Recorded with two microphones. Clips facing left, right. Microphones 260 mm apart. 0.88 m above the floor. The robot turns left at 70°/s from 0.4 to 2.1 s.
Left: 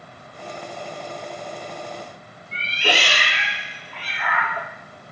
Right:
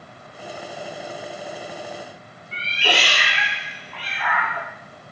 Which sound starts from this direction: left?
A cat meowing, at 2.5 s.